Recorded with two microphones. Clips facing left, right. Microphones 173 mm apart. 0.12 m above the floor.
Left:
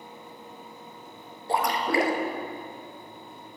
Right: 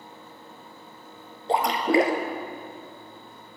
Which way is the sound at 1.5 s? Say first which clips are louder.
Right 4 dB; 25° right (ahead or behind).